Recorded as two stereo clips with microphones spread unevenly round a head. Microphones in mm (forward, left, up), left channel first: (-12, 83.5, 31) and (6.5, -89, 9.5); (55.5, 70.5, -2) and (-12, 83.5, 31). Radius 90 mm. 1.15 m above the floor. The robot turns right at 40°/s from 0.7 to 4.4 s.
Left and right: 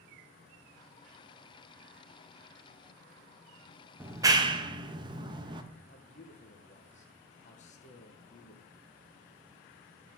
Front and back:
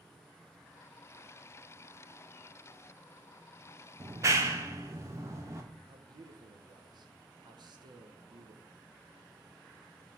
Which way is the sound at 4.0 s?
170° right.